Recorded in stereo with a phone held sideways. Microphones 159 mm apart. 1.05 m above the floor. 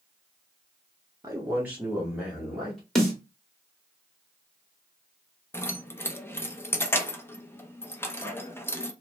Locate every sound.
1.2 s a man speaking: 20° right (ahead or behind), 0.6 m; by 2.8 s 5° left (ahead or behind), 1.4 m
3.0 s a snare drum: centre (ahead or behind), 1.3 m
5.5 s keys jangling: 15° left (ahead or behind), 0.5 m